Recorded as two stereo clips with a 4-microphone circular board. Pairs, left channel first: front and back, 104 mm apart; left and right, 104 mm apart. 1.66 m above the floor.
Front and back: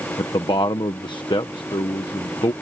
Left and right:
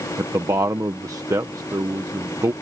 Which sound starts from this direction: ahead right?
A man speaking, at 0.2 s.